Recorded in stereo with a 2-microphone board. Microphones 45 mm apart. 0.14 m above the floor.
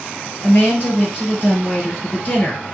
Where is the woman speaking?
40° left (ahead or behind), 2 m.